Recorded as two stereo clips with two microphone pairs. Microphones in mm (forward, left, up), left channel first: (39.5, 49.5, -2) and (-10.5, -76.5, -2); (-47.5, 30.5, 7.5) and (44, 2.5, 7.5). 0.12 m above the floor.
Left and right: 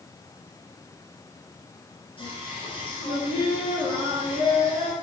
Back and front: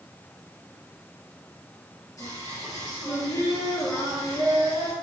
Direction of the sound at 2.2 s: 115° left.